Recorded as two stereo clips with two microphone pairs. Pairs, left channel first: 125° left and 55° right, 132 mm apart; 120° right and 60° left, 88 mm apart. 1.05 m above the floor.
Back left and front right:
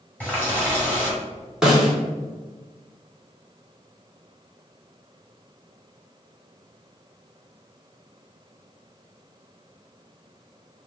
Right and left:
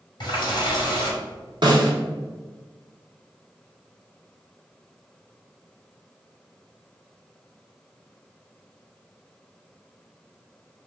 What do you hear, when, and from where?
0.2 s a running tap: 160° right, 1.4 m
1.6 s a snare drum: 30° left, 0.8 m